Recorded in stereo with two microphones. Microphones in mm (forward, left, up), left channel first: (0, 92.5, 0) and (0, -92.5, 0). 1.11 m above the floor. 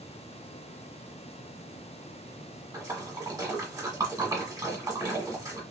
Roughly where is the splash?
Right.